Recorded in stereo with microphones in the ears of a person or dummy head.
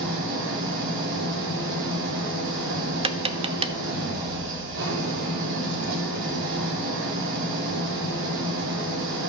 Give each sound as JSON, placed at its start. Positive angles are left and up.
{"t": 0.0, "sound": "an engine running", "side_deg": -80, "distance_m": 4.0}
{"t": 3.0, "sound": "tapping", "side_deg": -20, "distance_m": 0.6}